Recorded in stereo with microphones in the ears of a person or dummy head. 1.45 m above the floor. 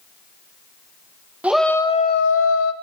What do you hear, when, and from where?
1.4 s a shout: 5° right (ahead or behind), 0.7 m; by 2.7 s 85° left, 0.9 m